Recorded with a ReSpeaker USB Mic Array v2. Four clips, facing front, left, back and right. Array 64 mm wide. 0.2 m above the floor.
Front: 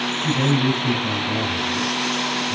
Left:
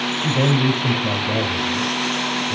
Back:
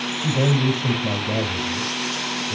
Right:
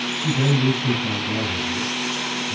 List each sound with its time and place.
0.2 s a man speaking: 120° left, 6 m